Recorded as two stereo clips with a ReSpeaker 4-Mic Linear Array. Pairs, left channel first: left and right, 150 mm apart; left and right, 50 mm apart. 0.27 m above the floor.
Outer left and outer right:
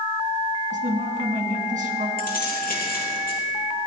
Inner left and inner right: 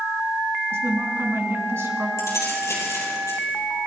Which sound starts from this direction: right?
A woman speaking, at 0.7 s.